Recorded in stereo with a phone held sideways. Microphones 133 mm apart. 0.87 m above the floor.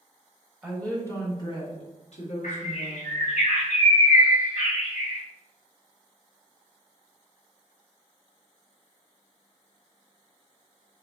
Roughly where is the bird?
Left.